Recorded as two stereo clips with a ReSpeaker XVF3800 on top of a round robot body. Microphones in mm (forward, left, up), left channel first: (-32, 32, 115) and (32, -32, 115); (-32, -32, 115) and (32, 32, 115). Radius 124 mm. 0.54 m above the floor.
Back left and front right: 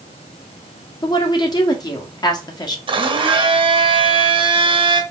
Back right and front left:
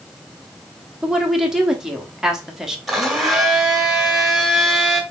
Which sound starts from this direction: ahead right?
A blender, at 2.9 s.